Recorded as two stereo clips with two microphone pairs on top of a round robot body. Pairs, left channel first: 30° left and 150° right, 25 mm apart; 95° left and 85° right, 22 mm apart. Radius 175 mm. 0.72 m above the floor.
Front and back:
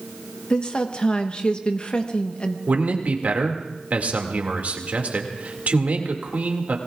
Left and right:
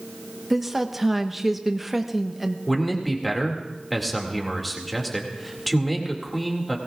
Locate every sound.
0.5 s a woman speaking: 5° right, 1.2 m
2.7 s a man speaking: 175° right, 2 m